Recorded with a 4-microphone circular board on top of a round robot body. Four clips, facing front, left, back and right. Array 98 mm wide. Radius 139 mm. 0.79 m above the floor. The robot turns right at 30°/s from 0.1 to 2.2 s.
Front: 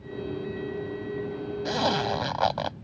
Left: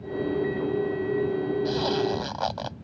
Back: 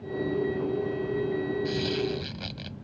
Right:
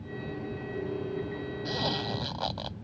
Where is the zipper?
Straight ahead; by 2.8 s 15° left.